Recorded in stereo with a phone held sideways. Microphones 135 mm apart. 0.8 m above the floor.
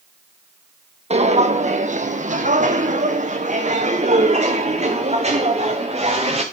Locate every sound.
1.1 s footsteps: 55° right (ahead or behind), 1.6 m; by 6.4 s 50° right (ahead or behind), 3.5 m